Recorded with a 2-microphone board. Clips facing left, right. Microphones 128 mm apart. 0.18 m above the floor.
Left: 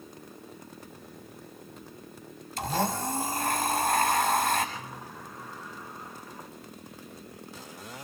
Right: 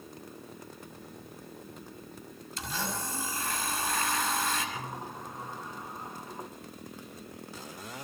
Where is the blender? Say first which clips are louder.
Left 8 dB; 55° left (ahead or behind), 6 m.